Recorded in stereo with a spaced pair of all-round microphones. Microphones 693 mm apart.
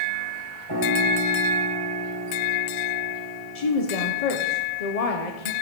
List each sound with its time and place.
0.7 s a piano: 35° right (ahead or behind), 3.5 m
3.5 s a woman speaking: 60° left (ahead or behind), 0.9 m